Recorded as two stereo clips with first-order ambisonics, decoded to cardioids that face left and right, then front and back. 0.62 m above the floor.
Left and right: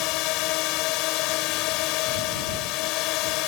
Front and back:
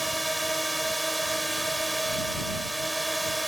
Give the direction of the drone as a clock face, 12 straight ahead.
9 o'clock.